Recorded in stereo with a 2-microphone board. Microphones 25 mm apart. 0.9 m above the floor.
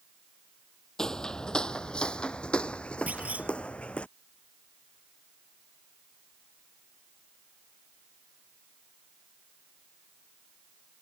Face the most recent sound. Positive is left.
turn(degrees=-60)  # may be behind; listen again after turning